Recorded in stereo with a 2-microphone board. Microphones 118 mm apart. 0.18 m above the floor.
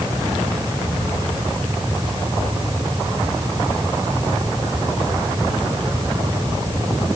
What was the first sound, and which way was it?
Only background noise.